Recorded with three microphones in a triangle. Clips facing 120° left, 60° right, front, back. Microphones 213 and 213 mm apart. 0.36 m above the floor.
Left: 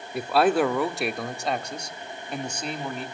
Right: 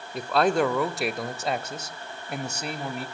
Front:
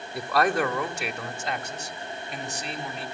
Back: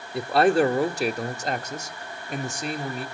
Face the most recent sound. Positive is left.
turn(degrees=-140)